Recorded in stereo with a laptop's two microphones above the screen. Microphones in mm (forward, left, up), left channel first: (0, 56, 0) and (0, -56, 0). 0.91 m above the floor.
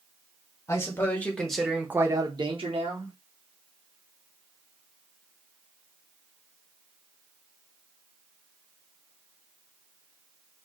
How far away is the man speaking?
About 1.3 m.